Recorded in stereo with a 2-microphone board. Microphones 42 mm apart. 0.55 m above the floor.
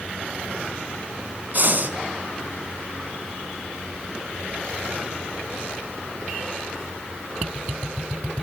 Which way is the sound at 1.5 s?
45° right (ahead or behind).